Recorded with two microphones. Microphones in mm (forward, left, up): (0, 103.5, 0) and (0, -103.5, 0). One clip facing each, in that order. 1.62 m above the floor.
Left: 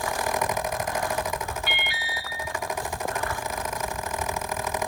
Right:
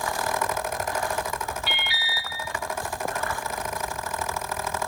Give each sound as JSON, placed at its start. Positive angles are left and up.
{"t": 1.7, "sound": "an alarm", "side_deg": 55, "distance_m": 2.5}